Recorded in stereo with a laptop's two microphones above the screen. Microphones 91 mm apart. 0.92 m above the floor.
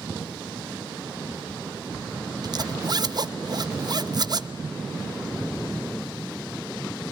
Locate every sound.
2.4 s a zipper: 50° right (ahead or behind), 0.7 m